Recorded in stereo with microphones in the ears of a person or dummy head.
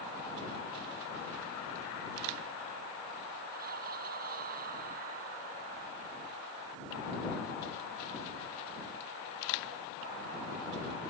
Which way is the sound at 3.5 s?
50° right (ahead or behind).